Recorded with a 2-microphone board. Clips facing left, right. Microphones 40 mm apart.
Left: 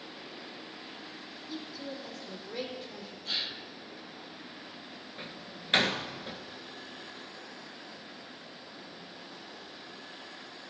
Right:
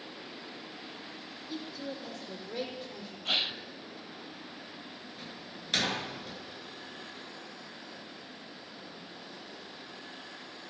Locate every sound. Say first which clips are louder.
1.5 s a woman speaking: right 1 dB; 10° right (ahead or behind), 4.5 m
3.2 s a gasp: right 5 dB; 45° right (ahead or behind), 0.5 m
5.2 s a door slam: left 1 dB; 30° left (ahead or behind), 1.3 m